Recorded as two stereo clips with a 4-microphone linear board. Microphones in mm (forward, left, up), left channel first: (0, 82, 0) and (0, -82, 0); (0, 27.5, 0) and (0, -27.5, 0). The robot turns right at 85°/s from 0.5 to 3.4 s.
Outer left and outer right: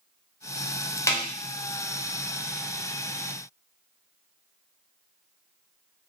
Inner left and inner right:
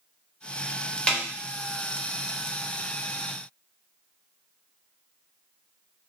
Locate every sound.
1.1 s a snare drum: 15° left (ahead or behind), 0.6 m; by 1.2 s 20° left (ahead or behind), 0.6 m